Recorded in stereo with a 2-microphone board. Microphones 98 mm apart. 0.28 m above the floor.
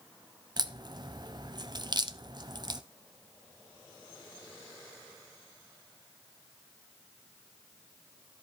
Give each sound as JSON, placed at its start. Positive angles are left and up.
{"t": 0.6, "sound": "a crack", "side_deg": -45, "distance_m": 0.6}